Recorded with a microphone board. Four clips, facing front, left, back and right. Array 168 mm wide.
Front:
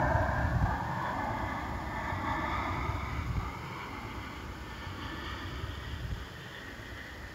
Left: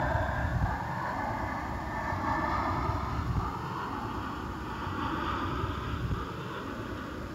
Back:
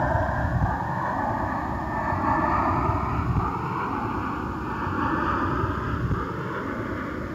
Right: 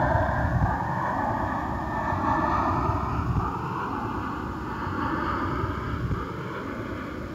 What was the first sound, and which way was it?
An aircraft, 125° right.